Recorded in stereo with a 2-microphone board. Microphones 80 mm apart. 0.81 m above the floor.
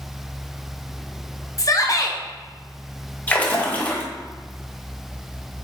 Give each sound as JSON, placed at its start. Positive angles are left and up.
{"t": 1.6, "sound": "a shout", "side_deg": 45, "distance_m": 0.7}
{"t": 3.3, "sound": "a splash", "side_deg": 20, "distance_m": 0.9}